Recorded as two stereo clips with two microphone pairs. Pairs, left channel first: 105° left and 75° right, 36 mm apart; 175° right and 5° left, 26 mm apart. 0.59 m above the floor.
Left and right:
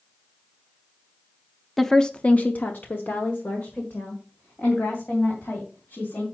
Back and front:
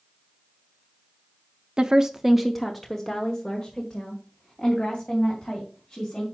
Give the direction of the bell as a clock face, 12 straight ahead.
I don't hear a bell.